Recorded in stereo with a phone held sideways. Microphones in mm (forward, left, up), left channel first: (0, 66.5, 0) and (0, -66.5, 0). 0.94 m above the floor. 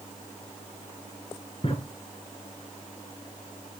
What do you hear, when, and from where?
1.6 s a drawer: 40° left (ahead or behind), 3 m